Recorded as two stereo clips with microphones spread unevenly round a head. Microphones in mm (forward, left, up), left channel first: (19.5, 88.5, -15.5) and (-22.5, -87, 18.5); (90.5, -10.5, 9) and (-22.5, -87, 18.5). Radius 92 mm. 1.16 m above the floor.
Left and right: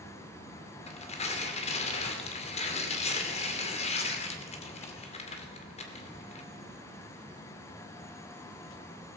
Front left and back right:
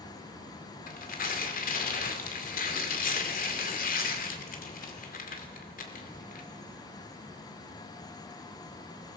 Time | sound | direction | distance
0.9 | tearing paper | 20° left | 2.5 m